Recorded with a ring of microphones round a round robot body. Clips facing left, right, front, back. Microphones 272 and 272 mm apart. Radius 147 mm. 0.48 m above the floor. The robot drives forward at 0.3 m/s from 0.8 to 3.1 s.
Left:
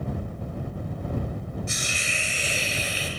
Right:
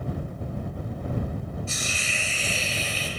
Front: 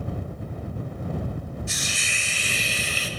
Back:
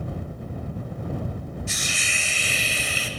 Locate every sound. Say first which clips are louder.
1.7 s a hiss: even, back 1 dB; 165° left, 1.8 m